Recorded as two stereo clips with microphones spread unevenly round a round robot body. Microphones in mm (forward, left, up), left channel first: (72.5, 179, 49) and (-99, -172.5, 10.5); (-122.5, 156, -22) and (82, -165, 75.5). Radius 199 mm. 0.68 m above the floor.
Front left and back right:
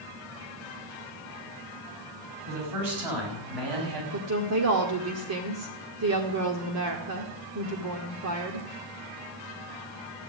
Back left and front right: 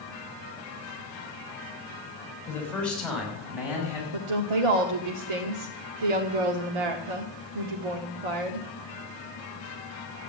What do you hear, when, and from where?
2.5 s a man speaking: 155° right, 5.5 m; by 4.0 s 140° right, 5.5 m
4.1 s a woman speaking: 70° right, 1.6 m